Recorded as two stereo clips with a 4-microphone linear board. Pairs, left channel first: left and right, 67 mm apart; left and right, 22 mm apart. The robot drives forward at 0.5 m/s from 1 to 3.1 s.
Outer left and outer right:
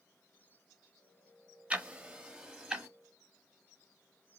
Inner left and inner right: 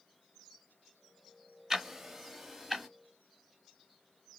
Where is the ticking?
20° right (ahead or behind), 0.6 m; by 2.9 s 10° right (ahead or behind), 1.1 m.